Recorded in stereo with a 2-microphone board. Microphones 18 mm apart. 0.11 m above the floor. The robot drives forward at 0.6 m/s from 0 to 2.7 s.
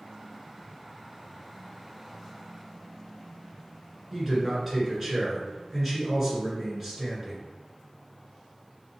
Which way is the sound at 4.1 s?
20° right (ahead or behind).